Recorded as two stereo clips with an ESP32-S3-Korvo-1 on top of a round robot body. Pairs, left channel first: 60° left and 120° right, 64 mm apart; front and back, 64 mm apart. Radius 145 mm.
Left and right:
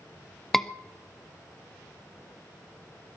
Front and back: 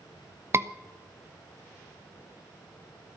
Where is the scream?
145° left, 1.2 m.